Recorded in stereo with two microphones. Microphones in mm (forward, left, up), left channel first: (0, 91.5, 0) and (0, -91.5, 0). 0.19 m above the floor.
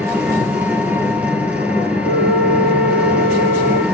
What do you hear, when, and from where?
0.0 s an engine running: 5° right (ahead or behind), 3 m
2.0 s a flute: 60° right (ahead or behind), 5 m